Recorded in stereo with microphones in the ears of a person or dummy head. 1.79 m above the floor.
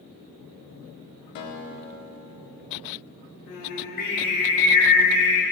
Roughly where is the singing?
Left.